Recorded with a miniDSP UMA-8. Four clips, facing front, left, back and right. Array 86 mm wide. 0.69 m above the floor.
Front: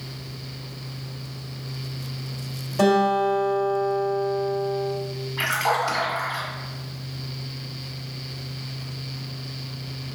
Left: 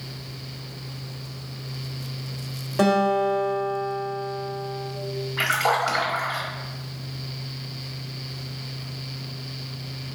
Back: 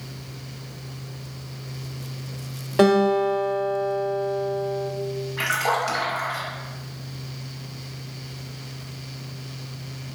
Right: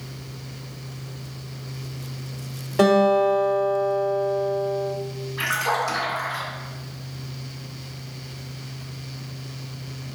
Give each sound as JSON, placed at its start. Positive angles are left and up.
{"t": 2.8, "sound": "a guitar", "azimuth_deg": -175, "distance_m": 1.0}
{"t": 5.4, "sound": "a splash", "azimuth_deg": 105, "distance_m": 1.5}